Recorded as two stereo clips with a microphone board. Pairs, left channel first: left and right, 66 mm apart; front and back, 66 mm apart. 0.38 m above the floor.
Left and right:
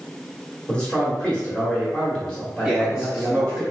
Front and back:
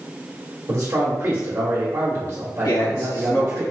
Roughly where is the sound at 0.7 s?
Behind left.